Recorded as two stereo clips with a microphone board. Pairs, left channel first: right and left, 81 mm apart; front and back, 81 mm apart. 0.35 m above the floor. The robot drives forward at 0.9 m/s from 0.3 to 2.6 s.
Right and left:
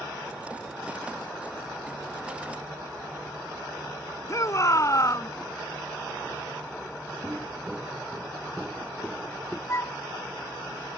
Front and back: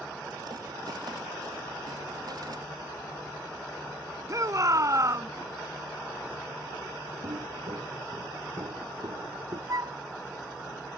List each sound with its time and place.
4.3 s a shout: 135° right
7.2 s footsteps: 170° left; by 9.6 s 175° left
9.7 s a flute: 140° right